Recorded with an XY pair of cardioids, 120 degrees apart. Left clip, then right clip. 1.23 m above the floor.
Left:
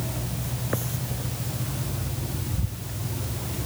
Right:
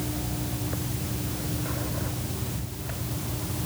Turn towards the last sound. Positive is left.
No sound to turn to.